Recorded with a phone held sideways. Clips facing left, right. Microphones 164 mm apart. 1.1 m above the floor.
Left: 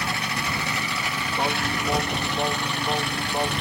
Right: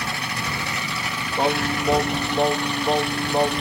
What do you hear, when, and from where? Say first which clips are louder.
1.4 s singing: right 6 dB; 35° right (ahead or behind)